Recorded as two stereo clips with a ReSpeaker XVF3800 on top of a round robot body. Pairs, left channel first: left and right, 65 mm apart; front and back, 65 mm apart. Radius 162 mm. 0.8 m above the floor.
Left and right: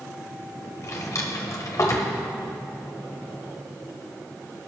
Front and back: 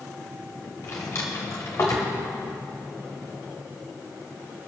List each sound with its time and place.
0.8 s a drawer: 50° left, 1.5 m